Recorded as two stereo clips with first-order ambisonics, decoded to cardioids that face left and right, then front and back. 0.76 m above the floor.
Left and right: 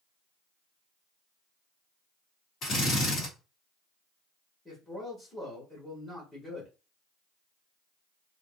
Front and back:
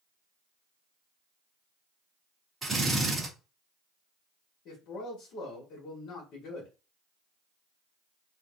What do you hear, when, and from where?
2.6 s a drill: 115° left, 1.2 m
4.7 s a man speaking: 5° left, 1.1 m